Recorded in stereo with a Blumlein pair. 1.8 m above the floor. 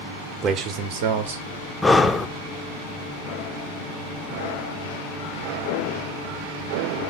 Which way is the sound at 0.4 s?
25° right.